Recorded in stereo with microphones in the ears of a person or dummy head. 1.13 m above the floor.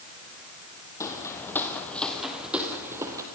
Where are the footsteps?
15° left (ahead or behind), 2 m; by 3.2 s 15° right (ahead or behind), 1.7 m.